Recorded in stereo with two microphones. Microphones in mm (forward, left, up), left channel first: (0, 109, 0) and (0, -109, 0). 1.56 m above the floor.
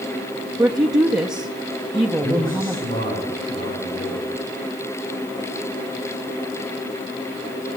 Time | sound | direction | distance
0.6 | a woman speaking | 15° right (ahead or behind) | 0.9 m
2.2 | a man speaking | 40° left (ahead or behind) | 7.5 m